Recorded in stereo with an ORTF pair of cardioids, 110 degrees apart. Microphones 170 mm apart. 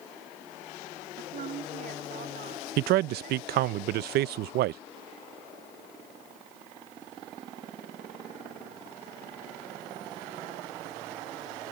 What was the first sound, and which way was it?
A woman speaking, 55° right.